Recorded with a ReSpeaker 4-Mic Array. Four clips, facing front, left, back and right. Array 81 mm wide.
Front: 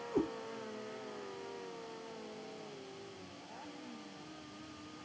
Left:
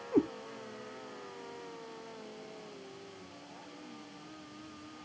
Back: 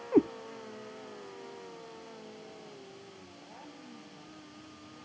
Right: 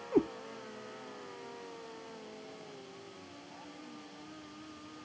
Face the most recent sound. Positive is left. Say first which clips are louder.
# even, back 10 dB
turn(degrees=180)